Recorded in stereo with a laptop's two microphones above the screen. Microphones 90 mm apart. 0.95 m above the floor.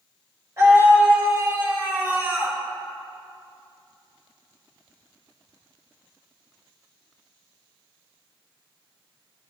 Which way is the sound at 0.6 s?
40° right (ahead or behind).